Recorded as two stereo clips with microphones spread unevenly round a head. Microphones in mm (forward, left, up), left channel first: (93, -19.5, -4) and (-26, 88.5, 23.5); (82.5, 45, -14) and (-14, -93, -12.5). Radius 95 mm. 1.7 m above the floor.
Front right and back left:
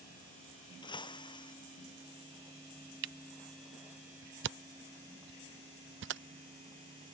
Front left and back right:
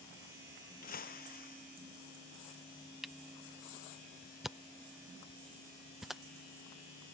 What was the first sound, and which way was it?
Breaking glass, 20° left.